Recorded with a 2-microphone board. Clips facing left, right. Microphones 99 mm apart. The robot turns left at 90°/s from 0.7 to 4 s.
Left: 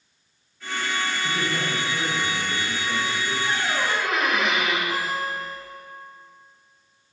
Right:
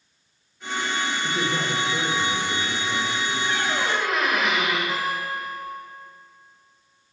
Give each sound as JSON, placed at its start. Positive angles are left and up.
{"t": 1.2, "sound": "a man speaking", "azimuth_deg": -60, "distance_m": 0.9}
{"t": 3.5, "sound": "a squeak", "azimuth_deg": 45, "distance_m": 1.2}
{"t": 4.9, "sound": "a guitar", "side_deg": -70, "distance_m": 2.0}